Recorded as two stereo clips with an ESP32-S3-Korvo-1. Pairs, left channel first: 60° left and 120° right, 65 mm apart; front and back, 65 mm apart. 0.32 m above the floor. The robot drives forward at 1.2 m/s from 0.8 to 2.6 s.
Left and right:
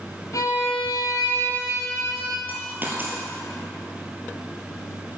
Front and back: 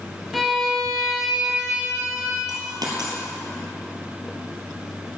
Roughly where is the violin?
Left.